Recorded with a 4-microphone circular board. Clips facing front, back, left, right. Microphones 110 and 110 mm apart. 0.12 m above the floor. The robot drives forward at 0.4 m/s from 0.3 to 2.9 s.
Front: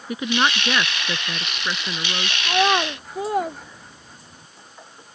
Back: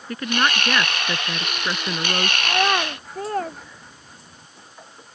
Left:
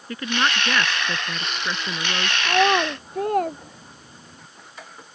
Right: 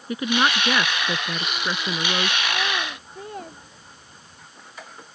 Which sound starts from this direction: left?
A child speaking, at 2.4 s.